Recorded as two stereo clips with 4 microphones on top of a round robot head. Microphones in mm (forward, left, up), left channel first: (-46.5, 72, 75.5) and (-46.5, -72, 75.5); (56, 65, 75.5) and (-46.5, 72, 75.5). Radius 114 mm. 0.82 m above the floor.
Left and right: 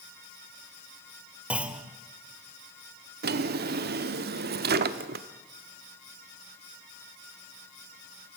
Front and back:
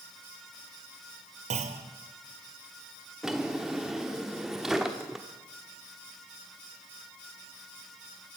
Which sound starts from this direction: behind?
A clunk, at 1.5 s.